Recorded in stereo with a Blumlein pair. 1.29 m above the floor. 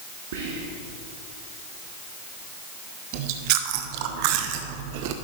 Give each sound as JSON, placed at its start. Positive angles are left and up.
{"t": 0.3, "sound": "whispering", "azimuth_deg": -55, "distance_m": 1.3}
{"t": 3.1, "sound": "chewing", "azimuth_deg": -45, "distance_m": 0.8}